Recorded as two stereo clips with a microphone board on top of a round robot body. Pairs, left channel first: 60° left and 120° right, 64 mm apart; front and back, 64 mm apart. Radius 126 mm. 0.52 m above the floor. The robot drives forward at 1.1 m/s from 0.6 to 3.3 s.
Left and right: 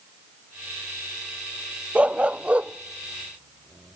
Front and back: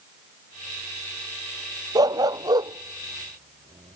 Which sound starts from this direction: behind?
A dog barking, at 1.9 s.